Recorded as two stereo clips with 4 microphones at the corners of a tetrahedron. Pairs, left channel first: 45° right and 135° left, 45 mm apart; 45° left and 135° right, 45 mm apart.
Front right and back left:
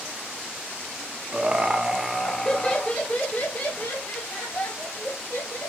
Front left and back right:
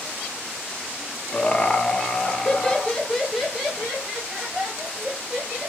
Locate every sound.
1.3 s laughter: 100° left, 0.8 m; by 5.7 s 50° right, 1.9 m